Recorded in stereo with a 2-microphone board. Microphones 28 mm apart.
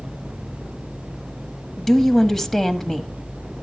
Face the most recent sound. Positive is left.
turn(degrees=10)  # may be behind; listen again after turning